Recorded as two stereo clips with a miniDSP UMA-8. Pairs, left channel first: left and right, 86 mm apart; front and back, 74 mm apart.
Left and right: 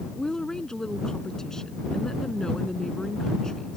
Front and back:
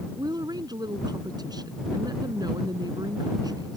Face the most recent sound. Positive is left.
turn(degrees=175)